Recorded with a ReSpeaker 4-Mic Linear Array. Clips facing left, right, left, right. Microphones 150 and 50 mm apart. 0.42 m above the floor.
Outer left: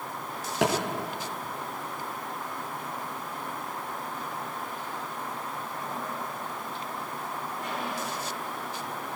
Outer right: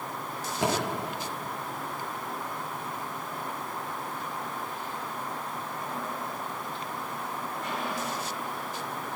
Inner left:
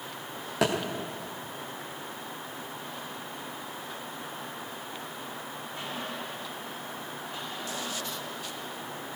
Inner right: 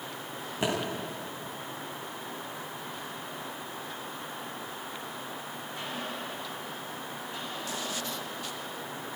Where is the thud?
85° left, 8 m.